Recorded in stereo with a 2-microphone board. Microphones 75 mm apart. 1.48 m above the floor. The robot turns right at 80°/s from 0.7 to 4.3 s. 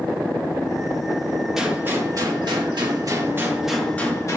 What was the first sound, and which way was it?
A gunshot, 175° right.